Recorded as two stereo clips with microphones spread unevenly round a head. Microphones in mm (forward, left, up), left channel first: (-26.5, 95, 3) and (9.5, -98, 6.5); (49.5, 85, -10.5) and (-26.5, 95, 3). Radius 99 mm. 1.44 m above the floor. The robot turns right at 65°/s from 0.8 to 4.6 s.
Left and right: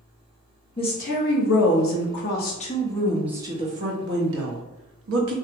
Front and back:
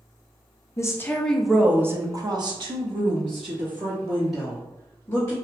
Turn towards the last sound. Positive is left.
turn(degrees=-75)